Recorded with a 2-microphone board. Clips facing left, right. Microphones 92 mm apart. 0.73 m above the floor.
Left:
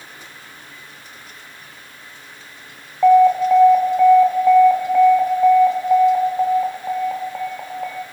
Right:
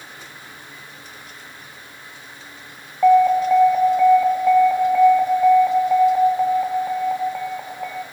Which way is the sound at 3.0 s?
5° left (ahead or behind).